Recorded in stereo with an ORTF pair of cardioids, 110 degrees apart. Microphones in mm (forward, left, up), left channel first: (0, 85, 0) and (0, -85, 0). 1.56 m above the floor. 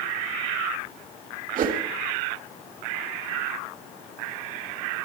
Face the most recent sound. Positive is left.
turn(degrees=-50)